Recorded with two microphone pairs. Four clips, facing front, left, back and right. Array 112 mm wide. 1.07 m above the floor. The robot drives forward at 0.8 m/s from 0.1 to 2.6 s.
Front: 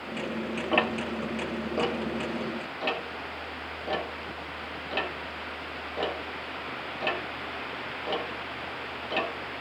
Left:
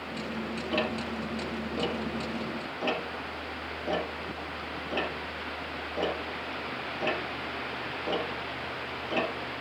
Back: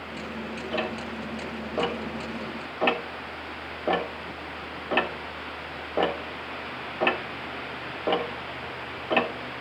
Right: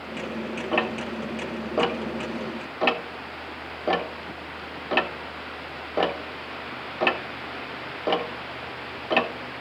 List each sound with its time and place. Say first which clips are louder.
0.7 s ticking: right 4 dB, front 4 dB; 50° right, 1.4 m; by 9.6 s 120° right, 1.2 m